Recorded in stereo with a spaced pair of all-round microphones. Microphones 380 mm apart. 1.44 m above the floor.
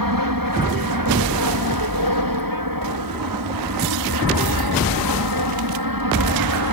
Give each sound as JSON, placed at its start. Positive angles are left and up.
{"t": 0.0, "sound": "an aircraft", "side_deg": -60}